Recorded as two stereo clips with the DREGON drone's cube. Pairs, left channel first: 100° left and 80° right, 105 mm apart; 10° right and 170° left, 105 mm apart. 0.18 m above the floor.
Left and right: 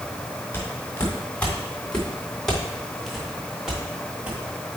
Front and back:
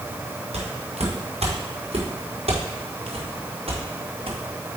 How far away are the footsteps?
About 4 m.